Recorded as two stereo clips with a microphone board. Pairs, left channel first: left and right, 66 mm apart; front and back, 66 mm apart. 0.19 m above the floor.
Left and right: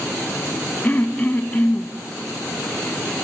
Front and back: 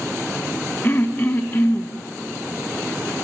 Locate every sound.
0.8 s throat clearing: 40° left, 1.4 m